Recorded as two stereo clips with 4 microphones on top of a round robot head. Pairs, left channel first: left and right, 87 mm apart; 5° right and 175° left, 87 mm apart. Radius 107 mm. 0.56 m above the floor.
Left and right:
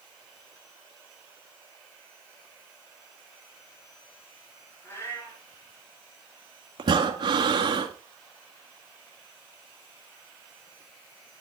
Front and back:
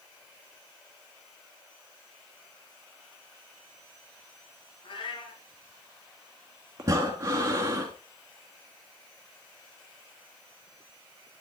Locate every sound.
4.8 s a cat meowing: 25° left, 4.5 m
6.8 s breathing: 120° right, 1.6 m